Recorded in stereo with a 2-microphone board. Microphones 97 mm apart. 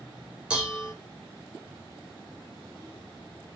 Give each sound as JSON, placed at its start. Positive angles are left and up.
{"t": 0.5, "sound": "dishes clattering", "side_deg": -10, "distance_m": 1.3}